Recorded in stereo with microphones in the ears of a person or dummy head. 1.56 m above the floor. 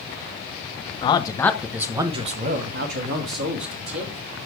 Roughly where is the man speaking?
Left.